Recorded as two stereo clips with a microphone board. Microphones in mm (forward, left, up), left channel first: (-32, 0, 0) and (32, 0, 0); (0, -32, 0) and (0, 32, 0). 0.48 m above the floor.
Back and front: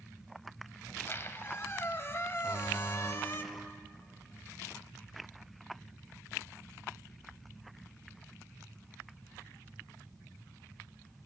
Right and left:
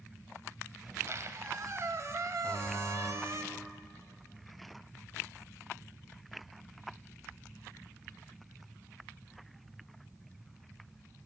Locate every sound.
0.9 s a squeak: 130° left, 0.6 m
2.4 s a buzzer: 150° right, 2.5 m